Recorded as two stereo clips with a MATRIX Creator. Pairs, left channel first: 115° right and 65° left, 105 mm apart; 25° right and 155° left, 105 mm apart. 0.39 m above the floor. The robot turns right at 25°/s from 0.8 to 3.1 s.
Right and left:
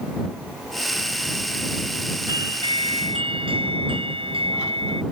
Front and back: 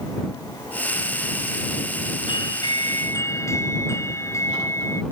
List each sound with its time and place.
2.3 s a doorbell: 20° left; by 5.0 s 40° left